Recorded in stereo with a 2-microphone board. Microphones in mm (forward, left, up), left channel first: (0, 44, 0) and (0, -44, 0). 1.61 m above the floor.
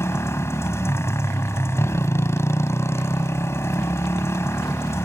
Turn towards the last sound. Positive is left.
turn(degrees=30)  # may be behind; listen again after turning